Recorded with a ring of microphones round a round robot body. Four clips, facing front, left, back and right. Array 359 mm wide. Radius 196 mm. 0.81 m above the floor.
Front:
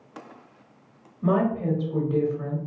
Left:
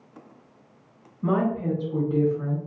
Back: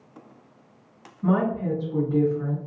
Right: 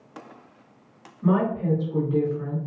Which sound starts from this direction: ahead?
A woman speaking, at 1.2 s.